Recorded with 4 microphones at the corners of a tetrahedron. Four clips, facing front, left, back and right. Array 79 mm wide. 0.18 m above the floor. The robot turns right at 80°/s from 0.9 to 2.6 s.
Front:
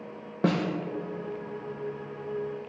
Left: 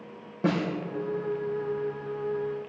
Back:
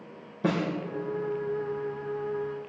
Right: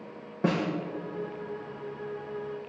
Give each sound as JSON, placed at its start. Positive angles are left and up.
{"t": 0.4, "sound": "a snare drum", "azimuth_deg": -5, "distance_m": 5.0}